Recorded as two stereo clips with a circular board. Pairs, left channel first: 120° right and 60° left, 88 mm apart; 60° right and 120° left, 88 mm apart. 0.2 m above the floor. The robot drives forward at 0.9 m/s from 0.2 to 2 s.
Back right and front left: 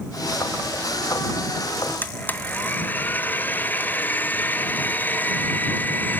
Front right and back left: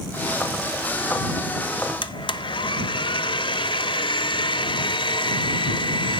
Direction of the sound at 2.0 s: 55° right.